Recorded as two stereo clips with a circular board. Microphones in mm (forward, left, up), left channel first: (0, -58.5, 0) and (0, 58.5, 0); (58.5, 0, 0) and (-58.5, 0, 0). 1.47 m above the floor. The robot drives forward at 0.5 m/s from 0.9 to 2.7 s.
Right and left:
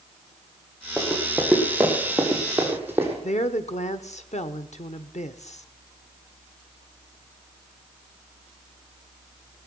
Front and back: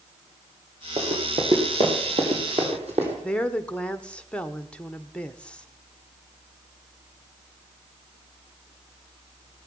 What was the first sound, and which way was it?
Running footsteps, 175° right.